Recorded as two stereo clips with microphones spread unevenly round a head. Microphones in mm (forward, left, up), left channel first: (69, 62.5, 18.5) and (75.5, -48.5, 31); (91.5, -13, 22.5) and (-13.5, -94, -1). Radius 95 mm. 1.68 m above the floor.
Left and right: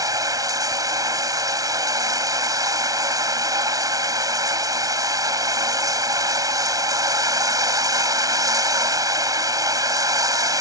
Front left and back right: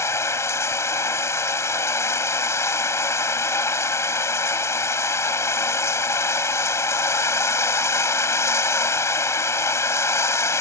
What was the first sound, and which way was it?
Running water, 30° right.